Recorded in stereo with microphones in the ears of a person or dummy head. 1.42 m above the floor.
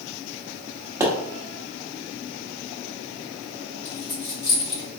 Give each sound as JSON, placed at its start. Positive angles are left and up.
{"t": 1.0, "sound": "a pop", "side_deg": -10, "distance_m": 1.1}
{"t": 3.9, "sound": "a dropped coin", "side_deg": 15, "distance_m": 1.9}